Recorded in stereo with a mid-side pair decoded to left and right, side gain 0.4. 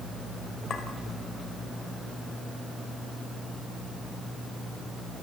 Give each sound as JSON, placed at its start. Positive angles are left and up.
{"t": 0.7, "sound": "a clink", "azimuth_deg": 55, "distance_m": 5.0}